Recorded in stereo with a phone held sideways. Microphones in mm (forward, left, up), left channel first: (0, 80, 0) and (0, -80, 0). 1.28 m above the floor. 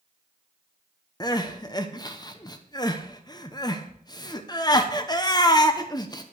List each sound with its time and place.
1.2 s crying: 30° left (ahead or behind), 0.9 m